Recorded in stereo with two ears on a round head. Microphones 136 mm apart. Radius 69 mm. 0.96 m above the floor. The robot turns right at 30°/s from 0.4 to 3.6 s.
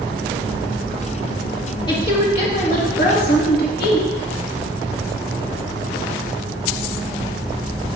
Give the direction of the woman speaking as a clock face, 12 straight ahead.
11 o'clock.